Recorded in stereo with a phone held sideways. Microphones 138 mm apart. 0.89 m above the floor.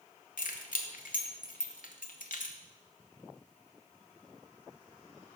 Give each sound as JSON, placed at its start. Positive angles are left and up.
{"t": 0.4, "sound": "keys jangling", "side_deg": 75, "distance_m": 0.7}